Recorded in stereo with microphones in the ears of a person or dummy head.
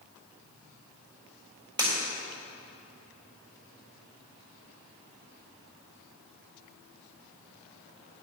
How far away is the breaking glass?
About 3.5 m.